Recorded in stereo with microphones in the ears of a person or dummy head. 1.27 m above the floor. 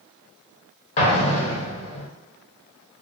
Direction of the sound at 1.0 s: 35° left (ahead or behind).